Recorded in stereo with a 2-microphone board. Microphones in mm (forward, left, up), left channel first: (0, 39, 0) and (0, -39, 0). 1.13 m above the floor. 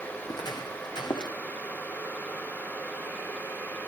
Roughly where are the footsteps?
Left.